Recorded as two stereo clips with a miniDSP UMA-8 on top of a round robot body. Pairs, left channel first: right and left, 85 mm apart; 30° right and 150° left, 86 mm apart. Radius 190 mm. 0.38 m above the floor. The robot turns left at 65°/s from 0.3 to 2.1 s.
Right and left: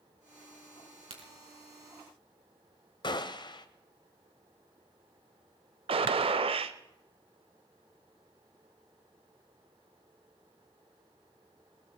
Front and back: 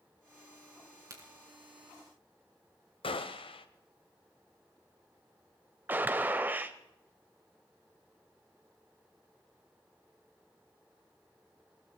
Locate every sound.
1.1 s a crack: 100° left, 4 m; by 1.3 s 85° left, 4 m
3.0 s a gunshot: 50° right, 0.8 m
5.9 s a gunshot: 80° left, 0.6 m